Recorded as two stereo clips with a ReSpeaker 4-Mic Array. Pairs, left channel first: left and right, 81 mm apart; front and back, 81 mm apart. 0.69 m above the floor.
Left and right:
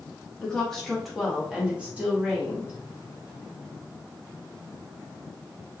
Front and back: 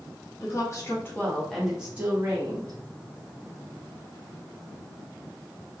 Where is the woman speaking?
10° left, 1.2 m; by 2.8 s 150° right, 1.3 m.